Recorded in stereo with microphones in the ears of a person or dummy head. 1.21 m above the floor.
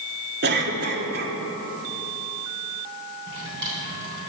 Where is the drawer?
60° right (ahead or behind), 3 m.